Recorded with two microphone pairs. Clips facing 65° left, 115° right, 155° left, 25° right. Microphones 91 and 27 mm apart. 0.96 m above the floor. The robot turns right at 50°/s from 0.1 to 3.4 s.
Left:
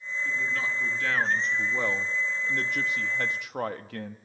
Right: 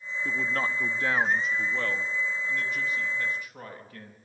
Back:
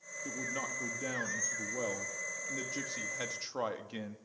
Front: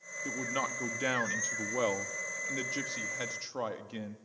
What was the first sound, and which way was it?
A man speaking, 90° right.